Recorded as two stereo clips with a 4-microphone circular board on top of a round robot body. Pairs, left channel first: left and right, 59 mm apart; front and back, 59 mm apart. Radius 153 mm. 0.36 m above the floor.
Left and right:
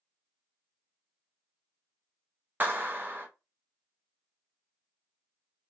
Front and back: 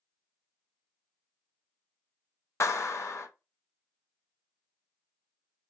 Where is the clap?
35° right, 1.4 m.